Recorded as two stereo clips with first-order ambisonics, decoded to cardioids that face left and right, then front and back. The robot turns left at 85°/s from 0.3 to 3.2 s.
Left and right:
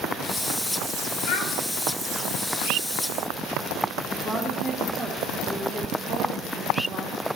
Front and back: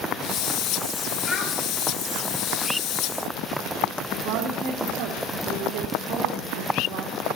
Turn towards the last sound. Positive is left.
turn(degrees=-170)